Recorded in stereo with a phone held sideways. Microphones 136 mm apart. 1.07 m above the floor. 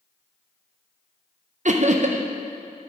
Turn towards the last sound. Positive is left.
turn(degrees=-65)  # may be behind; listen again after turning